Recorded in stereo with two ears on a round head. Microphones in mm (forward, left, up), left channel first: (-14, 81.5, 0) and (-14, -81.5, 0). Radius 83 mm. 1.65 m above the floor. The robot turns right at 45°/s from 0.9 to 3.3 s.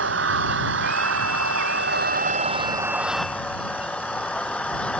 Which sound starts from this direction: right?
An engine running, at 0.0 s.